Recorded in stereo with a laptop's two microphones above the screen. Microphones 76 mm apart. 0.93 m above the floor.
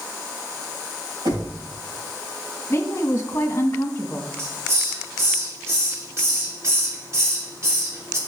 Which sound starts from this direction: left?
A woman speaking, at 2.7 s.